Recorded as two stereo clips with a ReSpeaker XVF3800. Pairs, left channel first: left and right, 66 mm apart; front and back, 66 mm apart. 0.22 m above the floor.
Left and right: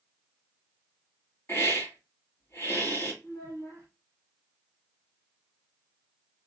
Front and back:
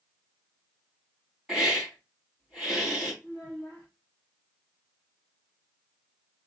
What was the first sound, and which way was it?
A hiss, 95° left.